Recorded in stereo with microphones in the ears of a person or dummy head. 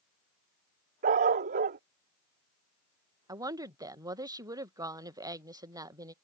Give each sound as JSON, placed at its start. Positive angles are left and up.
{"t": 1.0, "sound": "a dog barking", "side_deg": -30}
{"t": 3.3, "sound": "a woman speaking", "side_deg": -10}